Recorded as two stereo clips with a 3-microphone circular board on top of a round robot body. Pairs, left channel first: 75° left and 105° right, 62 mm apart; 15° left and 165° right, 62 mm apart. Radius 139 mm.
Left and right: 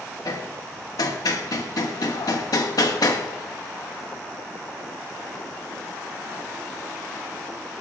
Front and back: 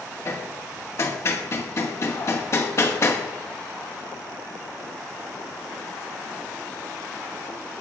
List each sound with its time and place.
0.2 s hammering: 60° left, 1.7 m